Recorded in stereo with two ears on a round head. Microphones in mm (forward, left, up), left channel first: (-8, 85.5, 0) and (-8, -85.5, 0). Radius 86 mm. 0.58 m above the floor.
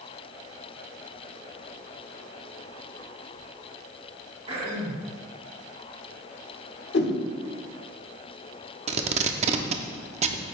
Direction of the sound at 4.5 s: 30° right (ahead or behind).